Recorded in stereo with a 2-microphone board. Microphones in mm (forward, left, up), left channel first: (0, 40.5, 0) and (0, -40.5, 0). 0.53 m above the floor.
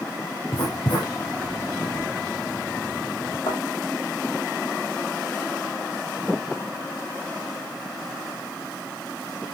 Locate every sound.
0.5 s writing: 75° left (ahead or behind), 8 m
3.5 s a thud: 85° left, 7 m